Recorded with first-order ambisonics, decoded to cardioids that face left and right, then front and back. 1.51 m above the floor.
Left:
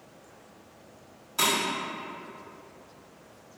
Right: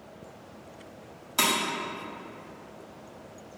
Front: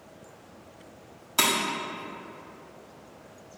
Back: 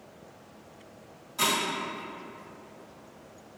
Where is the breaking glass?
30° right, 1.6 m.